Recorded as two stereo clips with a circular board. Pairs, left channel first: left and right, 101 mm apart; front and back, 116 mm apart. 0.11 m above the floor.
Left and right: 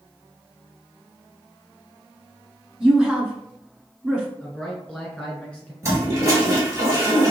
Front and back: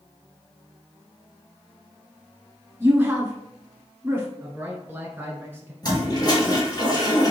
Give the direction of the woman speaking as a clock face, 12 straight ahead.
5 o'clock.